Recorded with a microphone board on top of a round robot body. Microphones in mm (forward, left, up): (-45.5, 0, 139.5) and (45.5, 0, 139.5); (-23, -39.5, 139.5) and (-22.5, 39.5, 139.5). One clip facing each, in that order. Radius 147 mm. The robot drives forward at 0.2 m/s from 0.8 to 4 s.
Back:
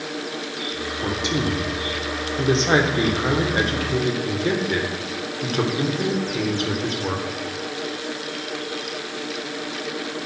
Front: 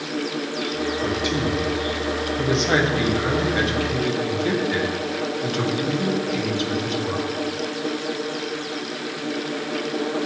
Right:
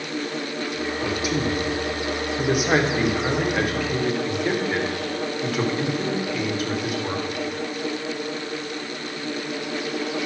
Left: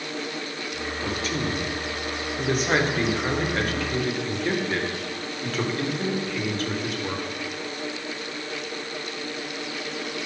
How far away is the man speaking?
About 1.3 m.